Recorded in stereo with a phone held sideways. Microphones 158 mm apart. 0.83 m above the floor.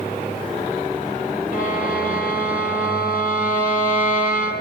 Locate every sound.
1.5 s a violin: 65° left (ahead or behind), 9.5 m